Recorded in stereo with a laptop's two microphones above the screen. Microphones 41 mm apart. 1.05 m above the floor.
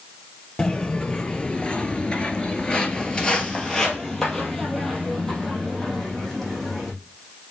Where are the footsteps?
25° left (ahead or behind), 1.5 m; by 6.9 s 5° left (ahead or behind), 3.5 m.